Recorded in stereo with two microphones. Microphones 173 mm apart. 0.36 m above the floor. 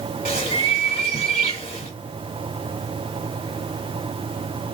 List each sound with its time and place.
0.2 s a bird: 35° left (ahead or behind), 1.2 m